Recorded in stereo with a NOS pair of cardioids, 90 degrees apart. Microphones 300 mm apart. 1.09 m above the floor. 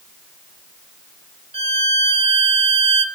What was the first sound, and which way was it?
A violin, 20° right.